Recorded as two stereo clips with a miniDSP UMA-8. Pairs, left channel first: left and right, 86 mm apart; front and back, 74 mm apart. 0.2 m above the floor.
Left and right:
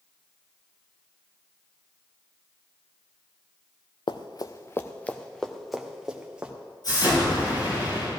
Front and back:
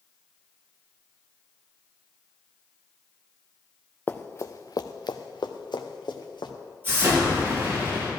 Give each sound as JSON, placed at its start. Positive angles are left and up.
{"t": 4.1, "sound": "running footsteps", "azimuth_deg": 65, "distance_m": 0.8}
{"t": 6.8, "sound": "an explosion", "azimuth_deg": 125, "distance_m": 4.5}